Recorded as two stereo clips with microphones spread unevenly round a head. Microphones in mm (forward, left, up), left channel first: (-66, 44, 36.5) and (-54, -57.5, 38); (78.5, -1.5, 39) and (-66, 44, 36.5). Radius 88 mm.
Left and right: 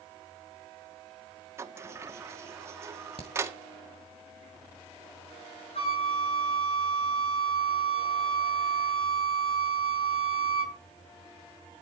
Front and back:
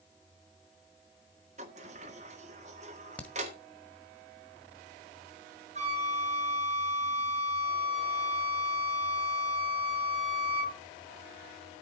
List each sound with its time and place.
1.6 s a sliding door: 145° right, 1.7 m
3.2 s a crack: 60° left, 1.7 m
5.8 s a flute: 120° left, 3 m